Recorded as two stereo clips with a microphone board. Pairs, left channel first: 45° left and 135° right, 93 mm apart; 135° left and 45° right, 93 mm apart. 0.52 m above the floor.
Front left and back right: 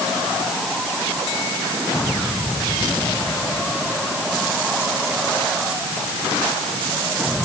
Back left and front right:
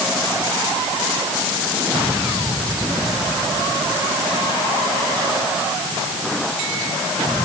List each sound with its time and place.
Only background noise.